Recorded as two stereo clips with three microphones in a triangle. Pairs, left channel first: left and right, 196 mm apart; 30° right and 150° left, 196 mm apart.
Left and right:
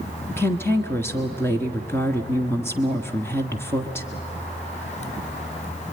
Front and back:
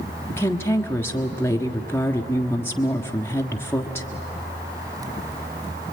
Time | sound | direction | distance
0.3 | a woman speaking | 30° left | 1.5 m